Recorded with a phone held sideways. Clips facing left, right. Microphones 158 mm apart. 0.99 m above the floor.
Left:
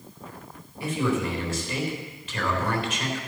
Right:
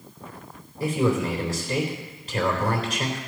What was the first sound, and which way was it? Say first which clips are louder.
A man speaking: right 3 dB; 40° right (ahead or behind).